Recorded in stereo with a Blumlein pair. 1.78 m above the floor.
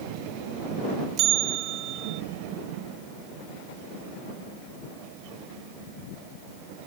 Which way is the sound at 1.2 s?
35° right.